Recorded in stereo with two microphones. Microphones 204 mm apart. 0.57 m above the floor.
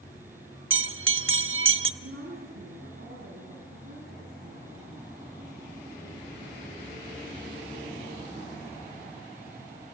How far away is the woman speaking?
About 5.5 m.